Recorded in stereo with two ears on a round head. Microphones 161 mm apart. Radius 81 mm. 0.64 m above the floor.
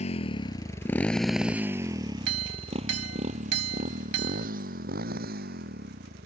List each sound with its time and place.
0.0 s a motorcycle: 40° left (ahead or behind); by 6.3 s 60° right (ahead or behind)
2.3 s a clink: 75° right (ahead or behind)